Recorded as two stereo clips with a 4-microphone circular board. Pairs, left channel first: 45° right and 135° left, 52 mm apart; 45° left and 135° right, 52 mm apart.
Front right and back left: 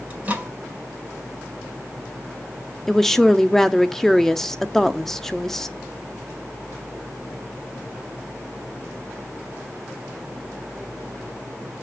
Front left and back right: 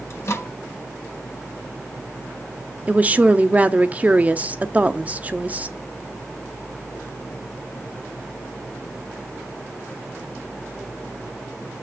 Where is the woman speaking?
120° right, 0.6 m.